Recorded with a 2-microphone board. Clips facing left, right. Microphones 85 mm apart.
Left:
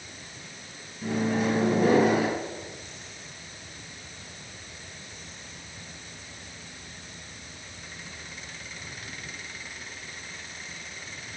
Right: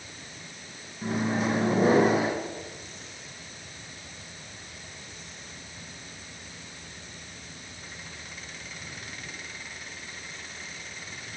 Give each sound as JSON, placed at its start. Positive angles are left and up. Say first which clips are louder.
{"t": 1.0, "sound": "a microwave", "louder": "left 1 dB", "side_deg": -35, "distance_m": 1.7}